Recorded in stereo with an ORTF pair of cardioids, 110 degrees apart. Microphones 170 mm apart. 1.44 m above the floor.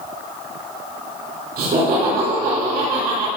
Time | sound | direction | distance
1.6 | laughter | 65° right | 5 m